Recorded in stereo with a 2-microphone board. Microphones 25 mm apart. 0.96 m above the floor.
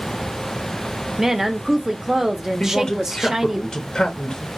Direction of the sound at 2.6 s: 25° left (ahead or behind).